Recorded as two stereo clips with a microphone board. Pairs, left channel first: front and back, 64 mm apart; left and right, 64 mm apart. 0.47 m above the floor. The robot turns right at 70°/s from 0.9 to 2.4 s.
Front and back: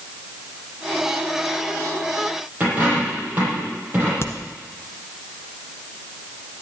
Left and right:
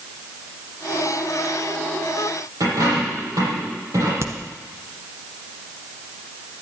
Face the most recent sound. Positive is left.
turn(degrees=-45)